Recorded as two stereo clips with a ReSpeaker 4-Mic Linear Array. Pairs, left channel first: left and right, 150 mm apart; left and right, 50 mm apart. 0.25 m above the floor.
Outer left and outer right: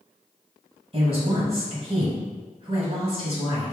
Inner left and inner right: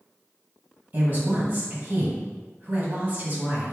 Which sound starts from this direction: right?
A woman speaking, at 0.9 s.